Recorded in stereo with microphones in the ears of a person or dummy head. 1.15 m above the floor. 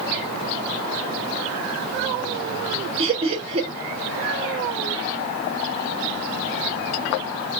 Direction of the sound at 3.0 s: 25° right (ahead or behind).